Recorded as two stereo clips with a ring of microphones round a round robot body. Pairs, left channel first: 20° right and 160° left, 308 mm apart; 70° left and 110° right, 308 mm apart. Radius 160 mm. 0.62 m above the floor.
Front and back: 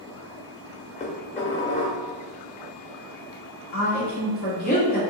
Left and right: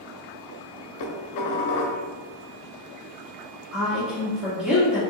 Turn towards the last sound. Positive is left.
turn(degrees=-30)